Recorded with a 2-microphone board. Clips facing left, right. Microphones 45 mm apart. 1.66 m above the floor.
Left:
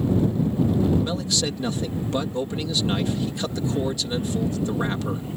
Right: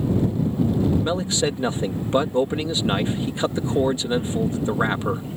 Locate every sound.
1.0 s a man speaking: 30° right (ahead or behind)